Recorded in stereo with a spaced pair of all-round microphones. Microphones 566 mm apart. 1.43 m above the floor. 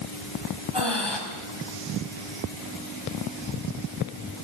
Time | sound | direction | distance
0.7 | breathing | 45° left (ahead or behind) | 3.5 m